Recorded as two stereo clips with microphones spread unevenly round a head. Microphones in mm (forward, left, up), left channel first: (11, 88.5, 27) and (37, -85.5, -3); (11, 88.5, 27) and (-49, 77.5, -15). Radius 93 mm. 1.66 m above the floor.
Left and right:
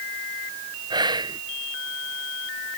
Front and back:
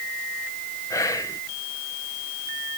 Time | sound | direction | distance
0.9 | whispering | 10° right | ?